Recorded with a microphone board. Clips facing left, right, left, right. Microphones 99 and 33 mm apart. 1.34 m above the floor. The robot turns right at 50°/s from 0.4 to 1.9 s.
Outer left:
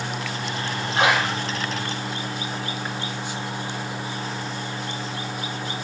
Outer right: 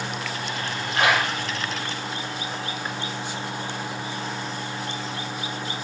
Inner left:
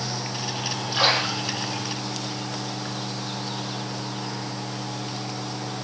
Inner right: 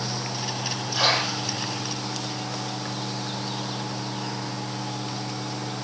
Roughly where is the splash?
Left.